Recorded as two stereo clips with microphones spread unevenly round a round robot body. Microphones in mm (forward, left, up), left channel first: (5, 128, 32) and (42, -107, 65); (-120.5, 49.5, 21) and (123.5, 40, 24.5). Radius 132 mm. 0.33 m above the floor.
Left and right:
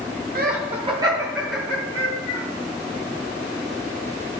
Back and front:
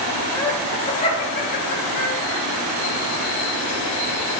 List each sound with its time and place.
0.3 s laughter: 110° right, 1.1 m; by 2.4 s 160° left, 1.5 m